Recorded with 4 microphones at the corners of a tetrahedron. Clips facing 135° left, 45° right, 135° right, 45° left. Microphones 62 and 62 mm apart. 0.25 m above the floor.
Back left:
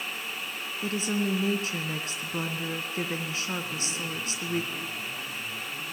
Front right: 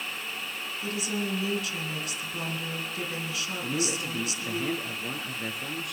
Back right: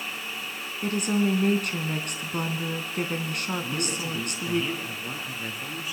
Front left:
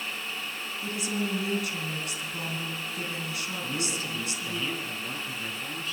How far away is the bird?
No bird in this recording.